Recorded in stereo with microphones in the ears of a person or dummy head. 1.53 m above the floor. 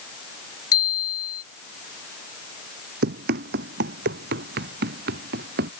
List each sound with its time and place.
0.7 s a bicycle bell: 20° left (ahead or behind)
3.0 s running footsteps: 60° right (ahead or behind); by 5.7 s 65° right (ahead or behind)